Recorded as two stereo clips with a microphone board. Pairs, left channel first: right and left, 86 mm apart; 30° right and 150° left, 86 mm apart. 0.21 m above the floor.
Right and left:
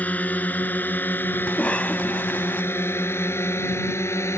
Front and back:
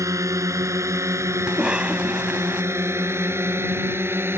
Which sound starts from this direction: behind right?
A cough, at 1.5 s.